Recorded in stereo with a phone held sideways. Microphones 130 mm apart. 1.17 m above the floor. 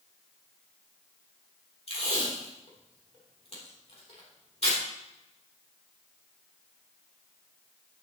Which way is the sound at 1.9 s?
50° left (ahead or behind).